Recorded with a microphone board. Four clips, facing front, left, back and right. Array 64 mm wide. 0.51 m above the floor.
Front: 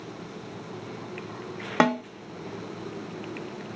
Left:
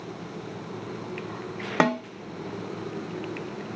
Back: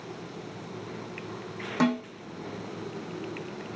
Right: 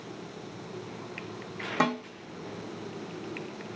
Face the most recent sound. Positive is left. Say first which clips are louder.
# left 5 dB, front 4 dB
turn(degrees=45)